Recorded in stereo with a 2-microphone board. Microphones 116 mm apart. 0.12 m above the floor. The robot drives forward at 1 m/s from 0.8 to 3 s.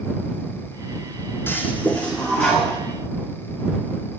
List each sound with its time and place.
1.5 s a toilet flushing: 20° left (ahead or behind), 0.9 m; by 2.8 s 10° left (ahead or behind), 2 m